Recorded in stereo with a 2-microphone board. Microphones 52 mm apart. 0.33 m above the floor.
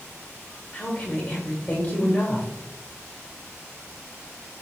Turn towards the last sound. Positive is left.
turn(degrees=30)  # may be behind; listen again after turning